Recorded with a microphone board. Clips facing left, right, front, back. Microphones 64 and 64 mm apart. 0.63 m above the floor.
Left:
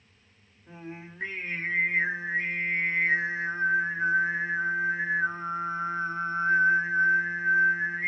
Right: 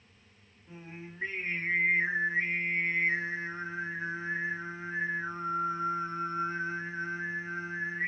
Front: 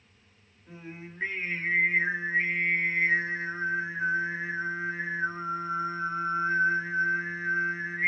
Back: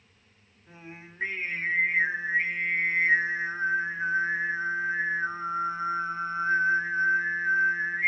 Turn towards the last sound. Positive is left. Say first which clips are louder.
# left 4 dB, front 3 dB
turn(degrees=95)